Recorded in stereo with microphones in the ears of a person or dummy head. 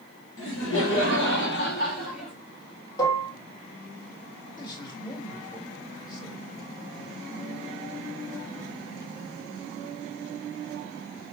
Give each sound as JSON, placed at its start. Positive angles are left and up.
{"t": 0.4, "sound": "laughter", "side_deg": 65, "distance_m": 1.3}
{"t": 3.0, "sound": "dishes clattering", "side_deg": 15, "distance_m": 1.0}
{"t": 4.6, "sound": "a man speaking", "side_deg": 20, "distance_m": 1.7}